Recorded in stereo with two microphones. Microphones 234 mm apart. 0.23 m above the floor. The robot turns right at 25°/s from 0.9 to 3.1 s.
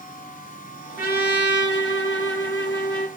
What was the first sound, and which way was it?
A trumpet, 45° left.